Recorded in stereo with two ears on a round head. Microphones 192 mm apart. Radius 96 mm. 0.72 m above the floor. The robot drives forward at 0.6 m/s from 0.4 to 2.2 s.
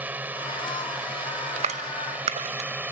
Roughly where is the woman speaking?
I don't hear a woman speaking.